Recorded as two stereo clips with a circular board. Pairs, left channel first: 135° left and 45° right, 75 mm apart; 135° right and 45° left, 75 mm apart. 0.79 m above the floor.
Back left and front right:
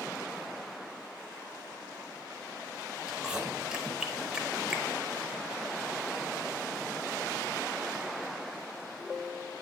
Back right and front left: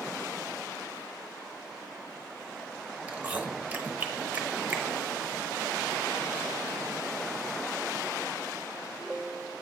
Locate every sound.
3.1 s chewing: 15° left, 0.8 m